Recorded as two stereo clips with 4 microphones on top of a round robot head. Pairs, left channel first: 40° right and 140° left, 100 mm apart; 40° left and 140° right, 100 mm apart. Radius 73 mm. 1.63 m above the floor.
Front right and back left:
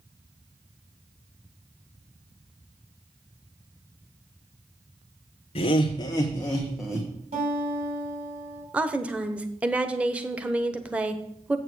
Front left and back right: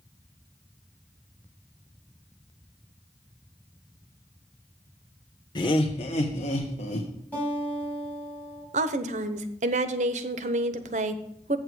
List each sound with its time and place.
5.5 s laughter: 10° right, 1.1 m; by 7.1 s 60° left, 1.3 m
7.3 s a guitar: 115° left, 3.5 m
8.7 s a woman speaking: 140° right, 0.8 m